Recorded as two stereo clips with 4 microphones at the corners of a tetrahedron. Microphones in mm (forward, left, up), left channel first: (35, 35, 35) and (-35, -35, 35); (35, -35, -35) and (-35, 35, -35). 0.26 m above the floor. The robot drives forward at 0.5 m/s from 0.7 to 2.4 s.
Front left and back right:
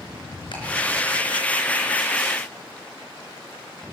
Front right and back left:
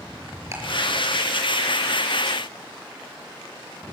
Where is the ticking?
75° left, 5 m.